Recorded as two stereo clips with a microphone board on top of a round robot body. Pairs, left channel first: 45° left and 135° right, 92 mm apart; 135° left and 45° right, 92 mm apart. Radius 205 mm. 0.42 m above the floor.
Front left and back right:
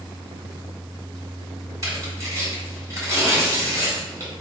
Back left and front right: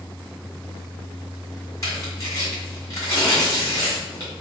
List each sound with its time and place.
1.8 s tearing paper: straight behind, 1.9 m